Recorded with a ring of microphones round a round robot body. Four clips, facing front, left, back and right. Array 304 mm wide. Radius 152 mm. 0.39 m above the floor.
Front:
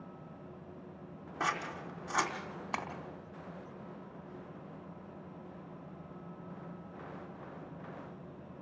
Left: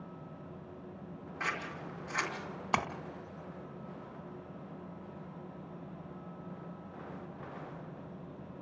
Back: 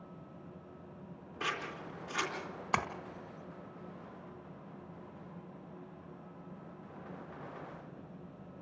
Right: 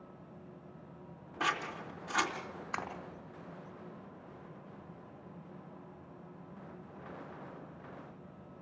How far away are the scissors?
About 2.5 m.